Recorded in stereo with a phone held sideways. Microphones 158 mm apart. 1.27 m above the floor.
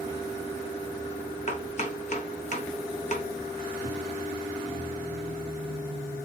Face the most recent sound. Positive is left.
turn(degrees=50)  # may be behind; listen again after turning